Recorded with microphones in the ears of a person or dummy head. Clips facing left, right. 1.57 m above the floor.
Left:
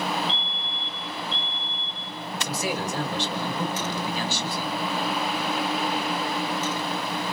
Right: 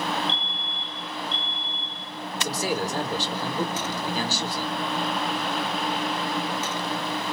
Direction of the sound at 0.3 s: 50° right (ahead or behind).